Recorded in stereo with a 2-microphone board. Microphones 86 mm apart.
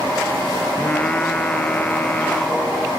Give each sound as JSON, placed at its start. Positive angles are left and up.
{"t": 0.8, "sound": "singing", "side_deg": 20}